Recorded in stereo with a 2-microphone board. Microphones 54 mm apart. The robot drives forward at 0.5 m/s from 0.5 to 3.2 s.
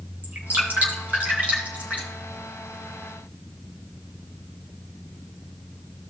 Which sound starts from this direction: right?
Dripping, at 0.2 s.